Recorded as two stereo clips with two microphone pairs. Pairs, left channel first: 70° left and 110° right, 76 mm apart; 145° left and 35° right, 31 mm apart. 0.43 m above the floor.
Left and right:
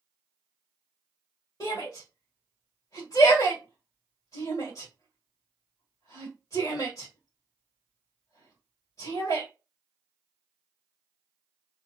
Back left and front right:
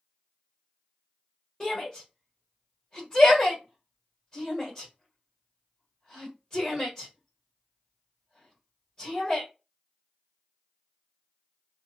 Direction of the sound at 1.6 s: 80° left.